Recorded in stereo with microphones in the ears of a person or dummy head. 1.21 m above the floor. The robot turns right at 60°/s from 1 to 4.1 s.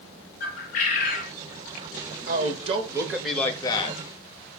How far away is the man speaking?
About 0.9 m.